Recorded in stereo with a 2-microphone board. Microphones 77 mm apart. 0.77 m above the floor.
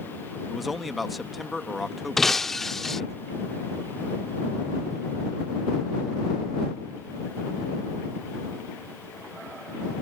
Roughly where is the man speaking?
Centre.